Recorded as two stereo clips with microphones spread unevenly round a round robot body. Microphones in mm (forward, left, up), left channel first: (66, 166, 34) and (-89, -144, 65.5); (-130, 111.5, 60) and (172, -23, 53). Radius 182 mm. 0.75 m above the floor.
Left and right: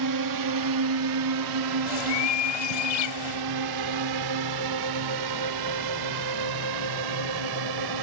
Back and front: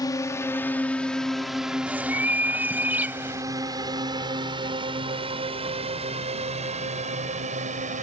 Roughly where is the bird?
Ahead left.